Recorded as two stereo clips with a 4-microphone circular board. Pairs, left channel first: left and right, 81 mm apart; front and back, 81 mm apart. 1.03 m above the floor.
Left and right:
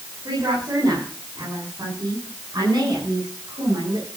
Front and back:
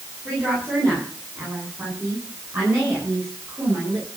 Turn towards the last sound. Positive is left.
turn(degrees=-120)